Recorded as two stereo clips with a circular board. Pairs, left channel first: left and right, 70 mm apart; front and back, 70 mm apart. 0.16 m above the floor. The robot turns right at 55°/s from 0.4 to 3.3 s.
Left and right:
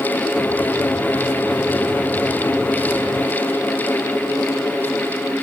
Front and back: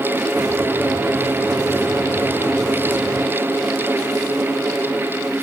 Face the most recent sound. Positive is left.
No sound to turn to.